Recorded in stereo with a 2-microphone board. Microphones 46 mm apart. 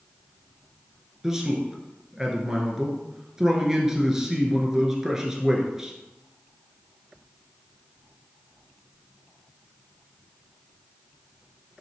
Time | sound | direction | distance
1.2 | a man speaking | 10° right (ahead or behind) | 1.5 m